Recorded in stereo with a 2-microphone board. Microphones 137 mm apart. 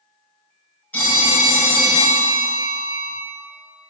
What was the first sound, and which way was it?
A phone ringing, 10° left (ahead or behind).